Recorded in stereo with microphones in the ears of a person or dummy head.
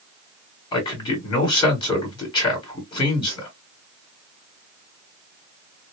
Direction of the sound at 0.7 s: 15° left (ahead or behind).